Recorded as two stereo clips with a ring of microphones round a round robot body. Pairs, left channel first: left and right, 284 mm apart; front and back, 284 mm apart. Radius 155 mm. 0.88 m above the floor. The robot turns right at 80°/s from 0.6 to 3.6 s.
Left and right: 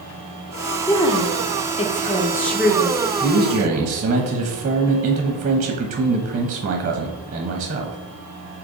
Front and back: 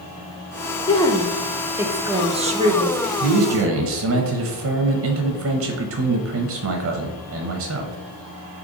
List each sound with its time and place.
0.9 s a woman speaking: 40° left, 0.6 m; by 3.0 s 155° right, 0.6 m
3.2 s a man speaking: straight behind, 0.6 m; by 8.0 s 150° right, 0.6 m